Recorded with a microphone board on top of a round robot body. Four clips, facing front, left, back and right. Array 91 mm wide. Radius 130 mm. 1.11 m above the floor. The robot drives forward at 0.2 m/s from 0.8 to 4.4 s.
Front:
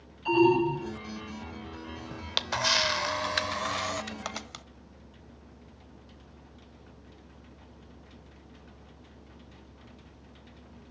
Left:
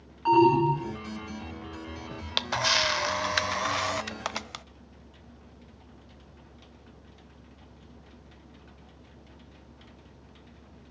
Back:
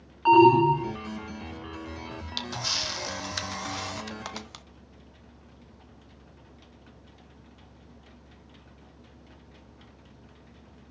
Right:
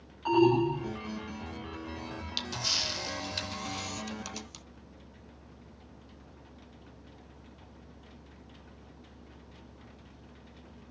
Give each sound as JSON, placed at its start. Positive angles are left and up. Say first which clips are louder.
{"t": 0.2, "sound": "an alarm", "louder": "left 4 dB, back 6 dB", "azimuth_deg": 170, "distance_m": 3.5}
{"t": 2.1, "sound": "a camera shutter", "louder": "left 7 dB, front 3 dB", "azimuth_deg": 55, "distance_m": 0.8}